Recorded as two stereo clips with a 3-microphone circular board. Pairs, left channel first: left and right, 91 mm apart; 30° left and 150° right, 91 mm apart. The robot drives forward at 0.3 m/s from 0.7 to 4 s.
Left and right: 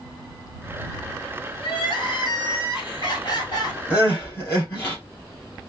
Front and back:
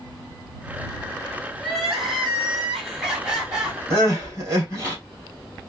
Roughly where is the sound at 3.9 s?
Behind left.